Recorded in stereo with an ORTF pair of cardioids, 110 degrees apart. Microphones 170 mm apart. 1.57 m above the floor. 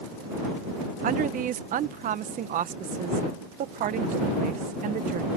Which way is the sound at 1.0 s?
55° right.